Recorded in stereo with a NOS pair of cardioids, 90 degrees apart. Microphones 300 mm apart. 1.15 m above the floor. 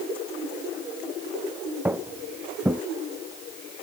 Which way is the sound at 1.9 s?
5° right.